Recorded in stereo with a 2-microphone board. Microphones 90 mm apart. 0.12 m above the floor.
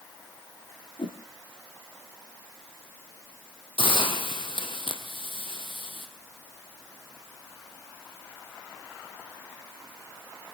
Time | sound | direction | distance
1.0 | a whoosh | 65° left (ahead or behind) | 2.5 m
3.8 | a hiss | 65° left (ahead or behind) | 2.5 m